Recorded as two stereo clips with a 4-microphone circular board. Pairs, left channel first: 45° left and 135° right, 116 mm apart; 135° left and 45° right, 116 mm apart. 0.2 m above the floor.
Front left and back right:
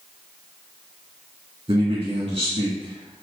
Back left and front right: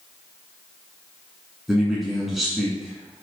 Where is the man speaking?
135° right, 2.0 m.